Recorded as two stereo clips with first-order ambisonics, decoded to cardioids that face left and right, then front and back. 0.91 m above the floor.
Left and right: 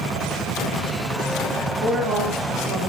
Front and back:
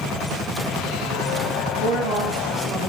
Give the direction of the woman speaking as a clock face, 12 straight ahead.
4 o'clock.